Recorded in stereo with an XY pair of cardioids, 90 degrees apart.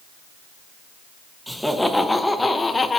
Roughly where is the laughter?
Ahead.